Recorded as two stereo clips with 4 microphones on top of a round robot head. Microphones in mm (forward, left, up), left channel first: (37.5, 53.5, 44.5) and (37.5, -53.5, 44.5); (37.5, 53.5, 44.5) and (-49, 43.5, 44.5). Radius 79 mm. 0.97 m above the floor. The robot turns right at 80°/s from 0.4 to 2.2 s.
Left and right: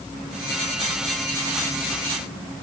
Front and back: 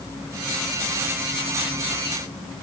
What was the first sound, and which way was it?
Only background noise.